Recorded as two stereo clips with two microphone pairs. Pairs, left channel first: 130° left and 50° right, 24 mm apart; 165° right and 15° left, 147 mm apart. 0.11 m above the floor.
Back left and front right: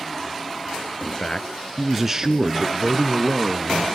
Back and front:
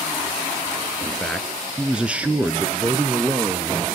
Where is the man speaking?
115° left, 1.5 m; by 3.9 s 55° right, 2.5 m.